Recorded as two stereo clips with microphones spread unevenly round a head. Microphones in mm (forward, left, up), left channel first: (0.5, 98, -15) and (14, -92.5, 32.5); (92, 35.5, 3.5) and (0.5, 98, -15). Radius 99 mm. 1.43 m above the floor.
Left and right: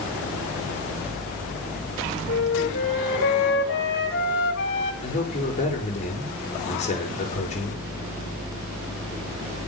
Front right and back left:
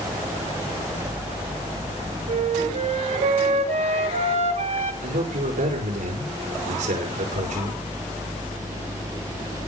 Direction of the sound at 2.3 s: 130° left.